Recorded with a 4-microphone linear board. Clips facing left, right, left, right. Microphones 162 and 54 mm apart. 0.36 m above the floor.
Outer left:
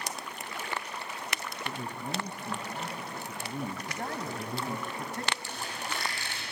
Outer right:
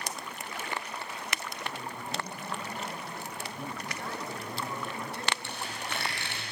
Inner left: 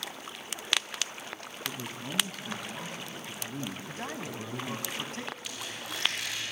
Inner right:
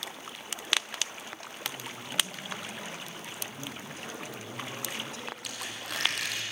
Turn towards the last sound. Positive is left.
turn(degrees=-65)  # may be behind; listen again after turning